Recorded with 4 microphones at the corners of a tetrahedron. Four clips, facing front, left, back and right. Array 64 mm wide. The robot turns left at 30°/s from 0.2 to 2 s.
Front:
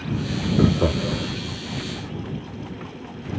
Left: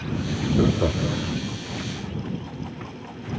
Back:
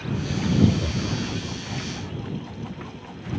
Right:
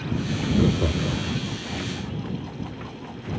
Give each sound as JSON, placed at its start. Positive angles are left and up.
{"t": 0.6, "sound": "laughter", "azimuth_deg": 35}